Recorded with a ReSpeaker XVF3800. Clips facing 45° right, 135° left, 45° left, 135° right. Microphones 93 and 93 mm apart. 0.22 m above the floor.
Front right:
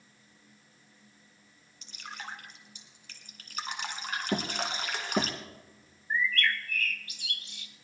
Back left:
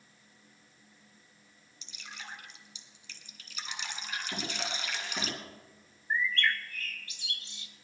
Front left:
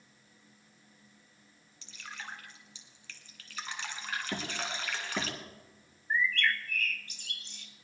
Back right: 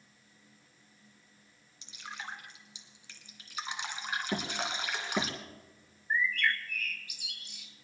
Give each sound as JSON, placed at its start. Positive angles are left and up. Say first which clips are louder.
{"t": 1.8, "sound": "dripping", "louder": "front right 5 dB, back right 2 dB", "azimuth_deg": -65, "distance_m": 1.6}
{"t": 4.3, "sound": "hammering", "louder": "front right 8 dB, back right 2 dB", "azimuth_deg": -55, "distance_m": 2.5}
{"t": 6.1, "sound": "a bird", "louder": "front right 1 dB, even", "azimuth_deg": 155, "distance_m": 1.3}